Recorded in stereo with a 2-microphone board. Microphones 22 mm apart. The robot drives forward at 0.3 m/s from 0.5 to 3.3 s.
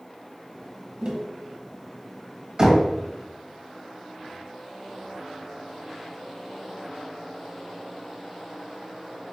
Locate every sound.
1.0 s tapping: 45° right (ahead or behind), 1.1 m
2.6 s knocking: 25° right (ahead or behind), 1.4 m